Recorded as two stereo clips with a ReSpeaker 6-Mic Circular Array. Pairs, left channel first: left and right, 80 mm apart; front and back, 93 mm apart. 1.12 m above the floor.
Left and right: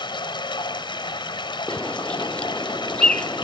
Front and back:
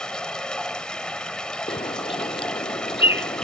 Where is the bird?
15° left.